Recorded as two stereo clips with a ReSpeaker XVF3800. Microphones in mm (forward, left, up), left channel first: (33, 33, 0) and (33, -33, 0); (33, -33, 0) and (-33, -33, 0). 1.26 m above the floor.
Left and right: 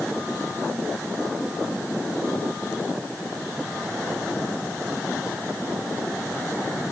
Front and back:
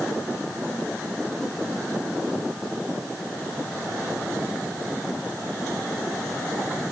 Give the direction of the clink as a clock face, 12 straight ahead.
I don't hear a clink.